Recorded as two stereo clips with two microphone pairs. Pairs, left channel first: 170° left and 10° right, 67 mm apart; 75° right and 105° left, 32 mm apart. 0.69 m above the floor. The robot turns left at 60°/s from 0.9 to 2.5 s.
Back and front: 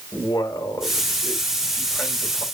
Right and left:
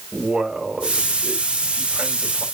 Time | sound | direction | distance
0.1 | a man speaking | 160° left | 3 m